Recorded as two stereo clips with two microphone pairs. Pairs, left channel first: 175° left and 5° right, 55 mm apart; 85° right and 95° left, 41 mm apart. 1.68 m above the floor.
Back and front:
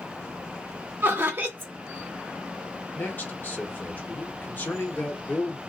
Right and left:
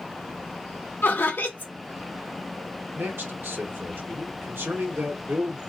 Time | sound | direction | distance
1.0 | laughter | 55° right | 1.9 m
3.0 | a man speaking | 120° left | 1.5 m